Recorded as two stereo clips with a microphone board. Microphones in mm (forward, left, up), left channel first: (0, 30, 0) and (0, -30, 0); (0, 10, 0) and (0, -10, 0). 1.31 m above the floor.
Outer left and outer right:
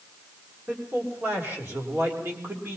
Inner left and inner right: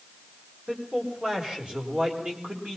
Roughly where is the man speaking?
Right.